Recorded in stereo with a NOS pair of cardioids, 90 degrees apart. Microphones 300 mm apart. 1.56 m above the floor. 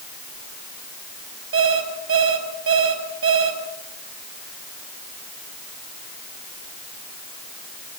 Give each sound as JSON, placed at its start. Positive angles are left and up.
{"t": 1.5, "sound": "an alarm clock", "azimuth_deg": -50, "distance_m": 5.5}